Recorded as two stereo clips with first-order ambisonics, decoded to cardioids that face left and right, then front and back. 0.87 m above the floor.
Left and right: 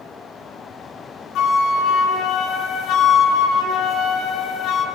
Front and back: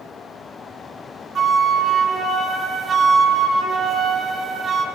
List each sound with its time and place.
1.4 s a flute: 120° left, 1.0 m